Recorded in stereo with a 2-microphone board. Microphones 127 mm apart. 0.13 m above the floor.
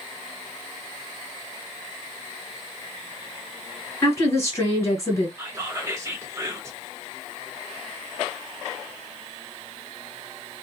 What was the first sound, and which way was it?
A woman speaking, 25° left (ahead or behind).